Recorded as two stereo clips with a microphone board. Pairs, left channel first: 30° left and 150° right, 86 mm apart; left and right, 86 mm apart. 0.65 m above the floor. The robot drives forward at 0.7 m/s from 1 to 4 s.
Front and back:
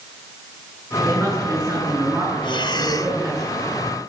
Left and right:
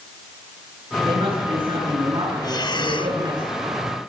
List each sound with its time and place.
1.1 s a woman speaking: 90° right, 9.5 m; by 3.4 s 100° right, 10 m
2.4 s breathing: 50° left, 1.0 m; by 3.2 s 85° left, 0.8 m